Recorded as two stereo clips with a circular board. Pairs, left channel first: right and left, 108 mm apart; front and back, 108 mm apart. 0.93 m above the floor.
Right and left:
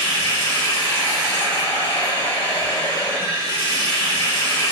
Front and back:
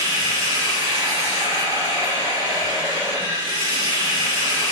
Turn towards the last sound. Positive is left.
turn(degrees=-150)